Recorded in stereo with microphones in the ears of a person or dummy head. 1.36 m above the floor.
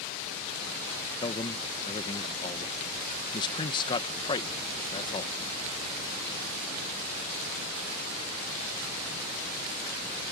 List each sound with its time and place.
1.2 s a man speaking: 25° left (ahead or behind)